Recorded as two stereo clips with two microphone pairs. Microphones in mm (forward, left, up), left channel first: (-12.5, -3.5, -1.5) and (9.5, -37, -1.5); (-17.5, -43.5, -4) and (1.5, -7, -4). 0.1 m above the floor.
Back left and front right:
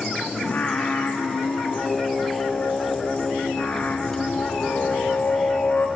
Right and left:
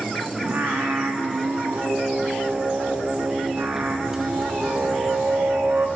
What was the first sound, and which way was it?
Singing, 80° left.